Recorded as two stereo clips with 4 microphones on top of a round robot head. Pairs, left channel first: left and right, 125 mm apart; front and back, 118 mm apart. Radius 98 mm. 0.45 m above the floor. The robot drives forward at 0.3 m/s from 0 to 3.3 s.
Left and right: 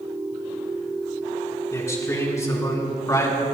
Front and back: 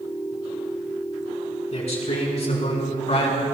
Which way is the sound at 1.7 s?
25° left.